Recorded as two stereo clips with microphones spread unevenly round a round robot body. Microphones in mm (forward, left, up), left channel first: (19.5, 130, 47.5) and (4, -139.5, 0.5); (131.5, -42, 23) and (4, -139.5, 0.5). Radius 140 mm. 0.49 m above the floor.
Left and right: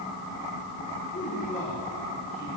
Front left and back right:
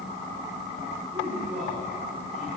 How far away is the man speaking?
About 7.5 m.